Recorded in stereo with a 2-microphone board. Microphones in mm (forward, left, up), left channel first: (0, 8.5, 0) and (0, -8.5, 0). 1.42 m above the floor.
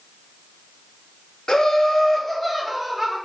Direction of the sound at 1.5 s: 60° left (ahead or behind).